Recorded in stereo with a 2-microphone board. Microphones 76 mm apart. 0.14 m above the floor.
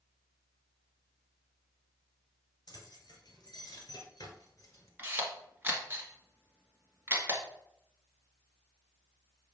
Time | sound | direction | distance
2.7 | keys jangling | 50° left (ahead or behind) | 2.5 m
5.0 | a camera shutter | 25° right (ahead or behind) | 1.5 m